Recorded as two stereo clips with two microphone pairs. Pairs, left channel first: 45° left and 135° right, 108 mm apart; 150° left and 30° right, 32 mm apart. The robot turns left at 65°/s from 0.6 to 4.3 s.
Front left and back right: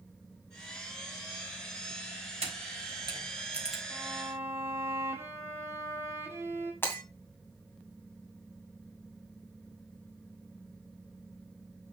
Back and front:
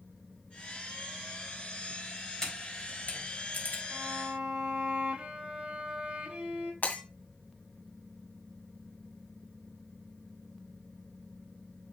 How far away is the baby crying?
No baby crying in this recording.